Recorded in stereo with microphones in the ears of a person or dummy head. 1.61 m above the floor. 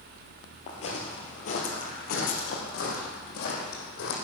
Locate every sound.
0.7 s footsteps: 30° left (ahead or behind), 2 m; by 4.2 s 55° left (ahead or behind), 4 m